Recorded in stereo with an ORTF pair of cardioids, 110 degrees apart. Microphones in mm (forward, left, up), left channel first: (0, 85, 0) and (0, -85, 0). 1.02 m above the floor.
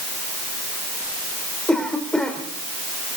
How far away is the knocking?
No knocking in this recording.